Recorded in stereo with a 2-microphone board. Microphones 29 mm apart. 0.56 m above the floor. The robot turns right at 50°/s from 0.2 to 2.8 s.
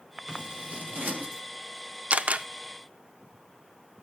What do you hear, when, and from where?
0.3 s scissors: 30° right (ahead or behind), 4 m; by 1.4 s 80° right, 4 m
2.1 s a camera shutter: 50° right (ahead or behind), 0.5 m; by 2.5 s 60° right (ahead or behind), 0.5 m